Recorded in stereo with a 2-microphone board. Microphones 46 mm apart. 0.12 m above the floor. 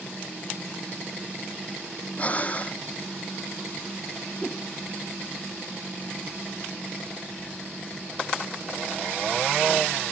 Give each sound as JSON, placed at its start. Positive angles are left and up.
{"t": 2.2, "sound": "breathing", "side_deg": 30}
{"t": 4.4, "sound": "a whoosh", "side_deg": 25}